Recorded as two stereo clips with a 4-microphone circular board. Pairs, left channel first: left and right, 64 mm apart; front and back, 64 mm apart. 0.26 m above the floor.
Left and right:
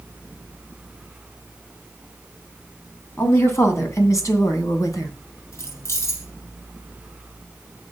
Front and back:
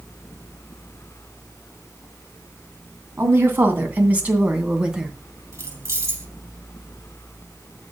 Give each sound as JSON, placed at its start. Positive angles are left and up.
{"t": 3.2, "sound": "a woman speaking", "azimuth_deg": 135, "distance_m": 2.5}
{"t": 5.5, "sound": "keys jangling", "azimuth_deg": 130, "distance_m": 6.0}